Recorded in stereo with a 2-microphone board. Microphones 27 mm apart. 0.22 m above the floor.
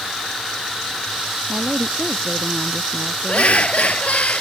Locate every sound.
1.5 s a woman speaking: 55° right (ahead or behind)
3.3 s laughter: 55° left (ahead or behind)